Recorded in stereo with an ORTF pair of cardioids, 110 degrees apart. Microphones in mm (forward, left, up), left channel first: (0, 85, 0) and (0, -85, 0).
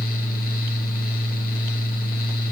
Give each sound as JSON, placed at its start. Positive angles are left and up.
{"t": 0.0, "sound": "a fan", "azimuth_deg": 60, "distance_m": 1.4}